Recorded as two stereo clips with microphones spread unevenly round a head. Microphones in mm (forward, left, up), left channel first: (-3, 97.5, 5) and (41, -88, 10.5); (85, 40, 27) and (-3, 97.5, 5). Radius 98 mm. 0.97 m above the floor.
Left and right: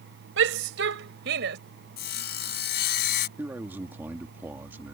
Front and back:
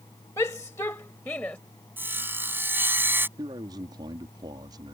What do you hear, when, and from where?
0.4 s a shout: 110° right; by 1.6 s 115° right
2.0 s sawing: 70° left
3.4 s a man speaking: 155° right